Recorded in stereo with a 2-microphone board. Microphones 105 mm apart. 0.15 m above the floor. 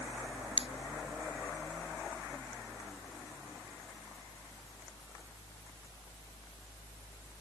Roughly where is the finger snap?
Right.